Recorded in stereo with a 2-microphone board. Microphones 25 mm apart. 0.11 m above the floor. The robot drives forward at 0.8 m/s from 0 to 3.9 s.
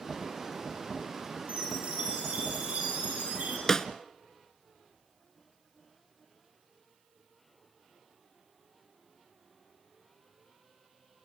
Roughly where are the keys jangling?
No keys jangling in this recording.